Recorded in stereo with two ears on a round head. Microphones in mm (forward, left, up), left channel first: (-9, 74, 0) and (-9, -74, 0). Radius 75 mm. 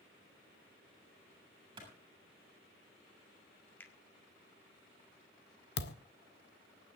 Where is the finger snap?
10° left (ahead or behind), 1.7 m.